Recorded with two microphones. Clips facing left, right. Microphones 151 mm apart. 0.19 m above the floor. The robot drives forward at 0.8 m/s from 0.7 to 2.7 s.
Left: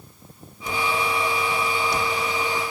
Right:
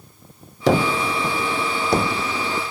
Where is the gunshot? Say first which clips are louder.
Right 7 dB; 80° right; by 2.6 s 45° right (ahead or behind).